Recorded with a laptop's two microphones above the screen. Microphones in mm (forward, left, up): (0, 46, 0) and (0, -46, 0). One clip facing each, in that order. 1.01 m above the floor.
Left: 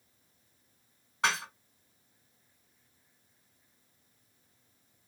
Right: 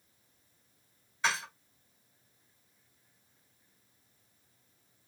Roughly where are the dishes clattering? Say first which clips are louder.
Left 2 dB; left.